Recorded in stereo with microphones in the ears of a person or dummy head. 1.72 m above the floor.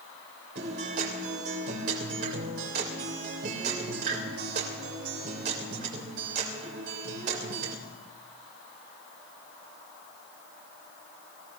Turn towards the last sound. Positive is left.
turn(degrees=-60)  # may be behind; listen again after turning